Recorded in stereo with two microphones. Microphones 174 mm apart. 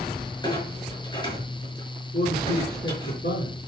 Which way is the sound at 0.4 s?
25° left (ahead or behind).